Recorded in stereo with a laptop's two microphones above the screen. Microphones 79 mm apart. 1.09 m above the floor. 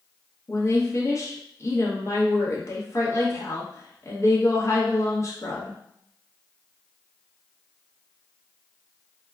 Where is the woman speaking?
35° left (ahead or behind), 0.9 m.